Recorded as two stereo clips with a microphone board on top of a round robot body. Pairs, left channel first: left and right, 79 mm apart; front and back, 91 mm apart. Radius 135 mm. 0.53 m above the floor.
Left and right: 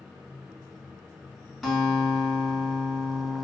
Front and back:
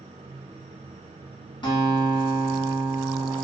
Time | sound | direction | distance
1.6 | a guitar | 5° right | 1.6 m